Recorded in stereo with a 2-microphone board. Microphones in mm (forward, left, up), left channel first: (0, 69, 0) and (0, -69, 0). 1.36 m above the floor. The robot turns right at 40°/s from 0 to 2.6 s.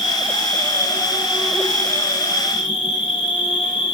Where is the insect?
60° right, 1.0 m; by 3.9 s 45° left, 1.0 m.